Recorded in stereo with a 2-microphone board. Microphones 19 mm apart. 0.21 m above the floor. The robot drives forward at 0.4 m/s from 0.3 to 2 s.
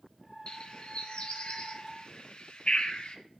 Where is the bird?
50° left (ahead or behind), 2.5 m; by 3.2 s 55° left (ahead or behind), 2 m.